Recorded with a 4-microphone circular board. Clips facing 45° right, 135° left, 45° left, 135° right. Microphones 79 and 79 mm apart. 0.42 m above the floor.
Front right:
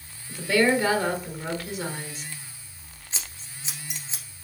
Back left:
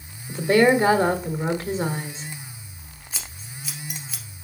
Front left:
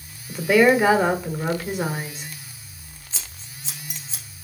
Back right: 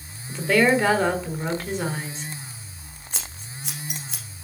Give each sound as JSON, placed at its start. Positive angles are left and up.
{"t": 0.3, "sound": "a woman speaking", "azimuth_deg": 120, "distance_m": 1.3}
{"t": 3.1, "sound": "scissors", "azimuth_deg": -110, "distance_m": 2.0}